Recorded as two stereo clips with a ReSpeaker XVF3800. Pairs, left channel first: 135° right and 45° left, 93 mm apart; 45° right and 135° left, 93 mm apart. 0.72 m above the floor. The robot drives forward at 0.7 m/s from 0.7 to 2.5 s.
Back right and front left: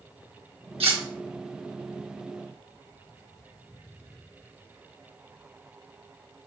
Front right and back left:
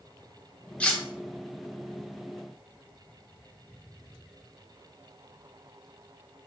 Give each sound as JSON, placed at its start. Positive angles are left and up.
{"t": 0.8, "sound": "cutlery clinking", "azimuth_deg": 30, "distance_m": 0.9}